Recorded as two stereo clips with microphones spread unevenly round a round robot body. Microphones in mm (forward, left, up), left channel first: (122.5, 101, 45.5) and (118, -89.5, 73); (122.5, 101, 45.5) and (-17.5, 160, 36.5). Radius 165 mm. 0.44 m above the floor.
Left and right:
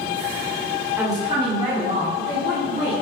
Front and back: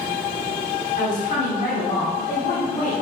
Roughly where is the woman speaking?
Ahead.